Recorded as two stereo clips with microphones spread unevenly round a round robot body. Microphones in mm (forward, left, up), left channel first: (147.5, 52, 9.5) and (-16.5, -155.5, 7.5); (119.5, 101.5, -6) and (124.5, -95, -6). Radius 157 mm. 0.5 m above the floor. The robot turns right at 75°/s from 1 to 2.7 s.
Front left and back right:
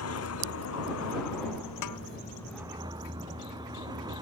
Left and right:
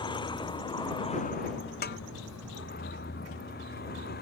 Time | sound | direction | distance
0.0 | a vehicle | 25° left | ?
1.8 | a snare drum | 55° left | ?